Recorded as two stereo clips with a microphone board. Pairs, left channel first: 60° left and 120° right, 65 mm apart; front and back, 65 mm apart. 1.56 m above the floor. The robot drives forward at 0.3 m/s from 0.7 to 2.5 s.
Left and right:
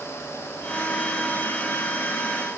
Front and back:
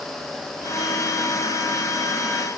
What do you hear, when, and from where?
Only background noise.